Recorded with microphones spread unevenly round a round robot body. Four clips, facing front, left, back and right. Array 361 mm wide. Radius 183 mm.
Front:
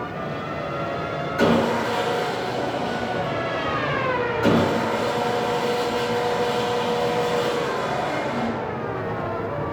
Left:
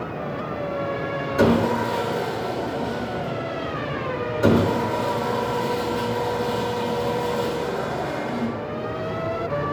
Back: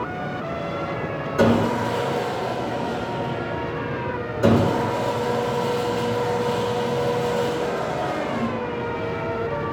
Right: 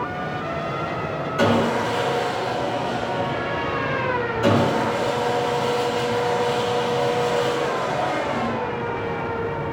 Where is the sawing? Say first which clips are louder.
Left 1 dB, back 1 dB; 150° left, 1.1 m.